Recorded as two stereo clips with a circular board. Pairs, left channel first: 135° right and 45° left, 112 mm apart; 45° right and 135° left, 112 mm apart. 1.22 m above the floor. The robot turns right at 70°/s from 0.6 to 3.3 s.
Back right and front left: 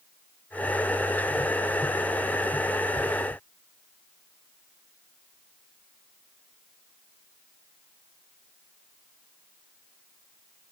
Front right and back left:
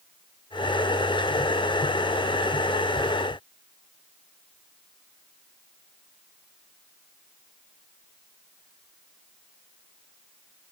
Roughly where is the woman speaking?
I don't hear a woman speaking.